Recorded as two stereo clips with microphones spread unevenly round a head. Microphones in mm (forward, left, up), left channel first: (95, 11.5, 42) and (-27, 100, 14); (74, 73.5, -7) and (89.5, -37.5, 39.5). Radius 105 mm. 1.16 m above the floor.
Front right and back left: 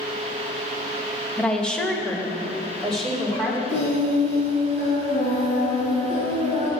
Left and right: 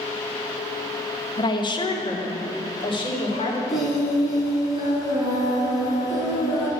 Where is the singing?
Straight ahead, 4 m.